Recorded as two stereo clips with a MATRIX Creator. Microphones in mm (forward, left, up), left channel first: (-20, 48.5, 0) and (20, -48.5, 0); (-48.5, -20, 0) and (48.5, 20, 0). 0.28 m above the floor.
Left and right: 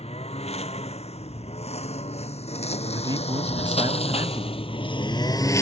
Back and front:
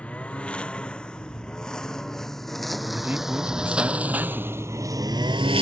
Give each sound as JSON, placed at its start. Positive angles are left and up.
{"t": 0.0, "sound": "a lawn mower", "azimuth_deg": 125}
{"t": 2.9, "sound": "a man speaking", "azimuth_deg": -45}